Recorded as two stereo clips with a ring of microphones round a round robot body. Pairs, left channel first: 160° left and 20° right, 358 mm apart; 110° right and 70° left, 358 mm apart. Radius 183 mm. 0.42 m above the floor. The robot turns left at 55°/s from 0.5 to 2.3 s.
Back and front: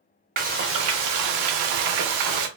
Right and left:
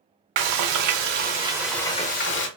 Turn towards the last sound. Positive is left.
turn(degrees=-55)